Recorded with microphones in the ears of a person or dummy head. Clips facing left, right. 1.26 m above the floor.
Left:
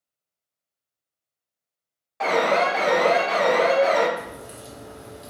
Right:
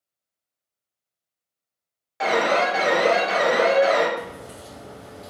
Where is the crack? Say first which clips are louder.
Right 1 dB; 15° left (ahead or behind), 1.4 m.